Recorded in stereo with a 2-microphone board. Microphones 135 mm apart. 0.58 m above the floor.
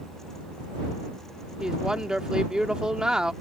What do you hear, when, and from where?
1.6 s a woman speaking: 5° right (ahead or behind)